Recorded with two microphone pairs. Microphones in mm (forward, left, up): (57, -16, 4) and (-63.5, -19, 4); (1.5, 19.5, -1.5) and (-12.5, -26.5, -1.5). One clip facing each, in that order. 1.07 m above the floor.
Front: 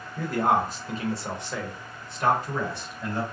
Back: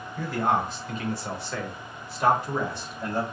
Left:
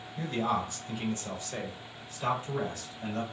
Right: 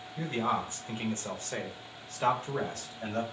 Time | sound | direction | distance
0.2 | a man speaking | 35° right | 1.3 m